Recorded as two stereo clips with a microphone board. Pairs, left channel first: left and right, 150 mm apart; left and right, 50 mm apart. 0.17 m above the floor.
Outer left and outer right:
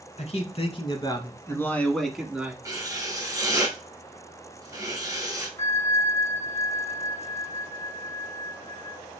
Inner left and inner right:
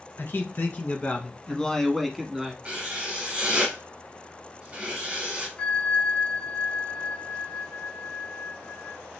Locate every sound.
0.2 s a man speaking: 50° left (ahead or behind), 1.5 m; by 2.5 s 10° right (ahead or behind), 1.3 m
2.6 s writing: 20° right (ahead or behind), 1.9 m
5.6 s a bell: 15° left (ahead or behind), 1.6 m